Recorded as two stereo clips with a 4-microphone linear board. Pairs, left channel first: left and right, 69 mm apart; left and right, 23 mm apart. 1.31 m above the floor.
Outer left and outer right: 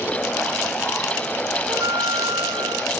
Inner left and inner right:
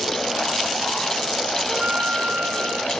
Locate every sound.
1.7 s a flute: 80° right